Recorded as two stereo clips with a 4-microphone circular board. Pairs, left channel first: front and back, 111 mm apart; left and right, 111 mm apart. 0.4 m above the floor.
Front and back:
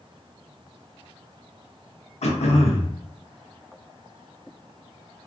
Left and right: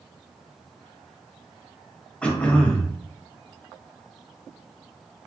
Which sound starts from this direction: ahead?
Throat clearing, at 2.2 s.